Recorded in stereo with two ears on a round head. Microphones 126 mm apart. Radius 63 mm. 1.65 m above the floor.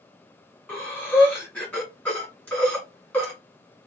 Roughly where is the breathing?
Centre.